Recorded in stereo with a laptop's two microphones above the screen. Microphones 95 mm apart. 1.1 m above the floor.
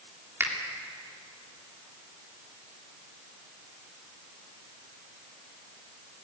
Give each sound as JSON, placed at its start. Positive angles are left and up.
{"t": 0.4, "sound": "a finger snap", "side_deg": -25, "distance_m": 2.5}